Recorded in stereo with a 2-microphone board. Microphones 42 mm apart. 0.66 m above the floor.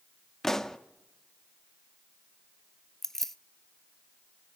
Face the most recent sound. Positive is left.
turn(degrees=10)  # may be behind; listen again after turning